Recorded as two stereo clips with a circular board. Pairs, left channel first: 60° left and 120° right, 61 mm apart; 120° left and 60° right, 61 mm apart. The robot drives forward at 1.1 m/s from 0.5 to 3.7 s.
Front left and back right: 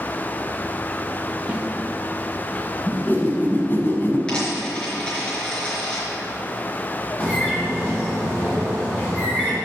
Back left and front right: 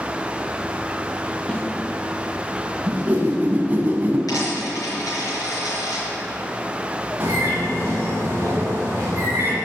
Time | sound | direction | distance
1.5 | a snare drum | 175° right | 1.1 m
2.9 | a whoosh | straight ahead | 2 m
4.3 | a dropped coin | 135° left | 4 m
7.2 | a bird | 5° right | 3.5 m